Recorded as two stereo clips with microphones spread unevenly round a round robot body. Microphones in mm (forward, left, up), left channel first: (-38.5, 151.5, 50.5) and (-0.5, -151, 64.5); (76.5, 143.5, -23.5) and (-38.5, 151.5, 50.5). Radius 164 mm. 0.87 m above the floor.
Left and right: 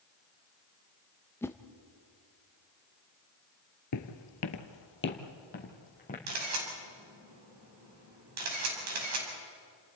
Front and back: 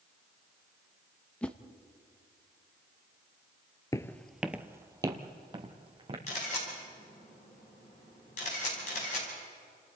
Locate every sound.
1.4 s a whoosh: 20° left, 0.9 m
3.9 s footsteps: 90° left, 1.1 m; by 6.2 s 165° left, 3 m
6.3 s a camera shutter: 40° right, 5 m